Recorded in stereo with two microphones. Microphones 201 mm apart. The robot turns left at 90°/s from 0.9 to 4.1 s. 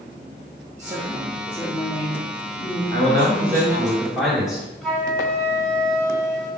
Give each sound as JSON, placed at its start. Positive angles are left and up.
{"t": 0.8, "sound": "a woman speaking", "azimuth_deg": -135, "distance_m": 1.2}
{"t": 2.9, "sound": "a man speaking", "azimuth_deg": -70, "distance_m": 2.5}
{"t": 4.8, "sound": "a flute", "side_deg": 0, "distance_m": 1.7}